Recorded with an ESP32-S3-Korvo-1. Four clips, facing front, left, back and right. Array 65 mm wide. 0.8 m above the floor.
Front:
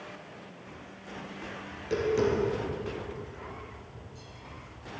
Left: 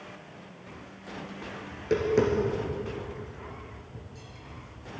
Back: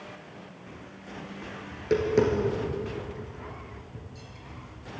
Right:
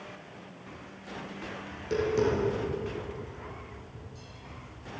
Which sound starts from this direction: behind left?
Tapping, at 1.7 s.